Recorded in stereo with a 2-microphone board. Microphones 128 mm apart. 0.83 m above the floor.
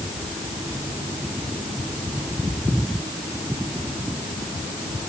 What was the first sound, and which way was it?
Only background noise.